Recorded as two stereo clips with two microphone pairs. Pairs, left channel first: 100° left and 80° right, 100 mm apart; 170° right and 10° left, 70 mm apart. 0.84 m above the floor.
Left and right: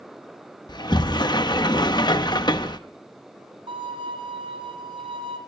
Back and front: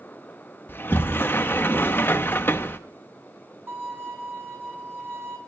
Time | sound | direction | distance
0.7 | a sliding door | 135° left | 0.7 m
3.7 | a violin | 45° right | 3.5 m